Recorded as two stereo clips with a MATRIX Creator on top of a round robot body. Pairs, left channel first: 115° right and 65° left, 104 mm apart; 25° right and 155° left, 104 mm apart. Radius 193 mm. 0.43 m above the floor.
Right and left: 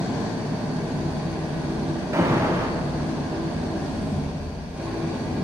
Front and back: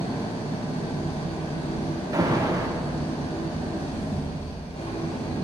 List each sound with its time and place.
0.0 s an engine running: 5° right, 2.5 m
2.1 s an alarm: 120° left, 1.1 m